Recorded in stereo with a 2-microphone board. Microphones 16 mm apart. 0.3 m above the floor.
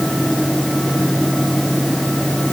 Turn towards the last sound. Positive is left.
No sound to turn to.